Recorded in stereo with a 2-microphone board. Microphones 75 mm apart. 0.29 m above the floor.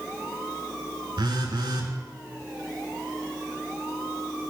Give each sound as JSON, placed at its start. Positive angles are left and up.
{"t": 1.2, "sound": "a phone buzzing", "side_deg": -85, "distance_m": 0.6}